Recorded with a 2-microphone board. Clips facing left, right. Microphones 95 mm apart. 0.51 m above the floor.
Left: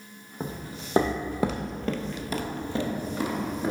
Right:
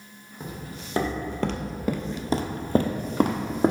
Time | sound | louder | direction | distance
0.4 | footsteps | left 2 dB | 35° left (ahead or behind) | 1.0 m